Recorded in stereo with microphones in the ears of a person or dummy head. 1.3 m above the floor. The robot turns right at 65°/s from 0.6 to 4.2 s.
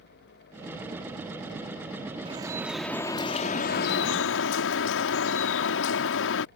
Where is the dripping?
35° right; by 6.5 s 95° left.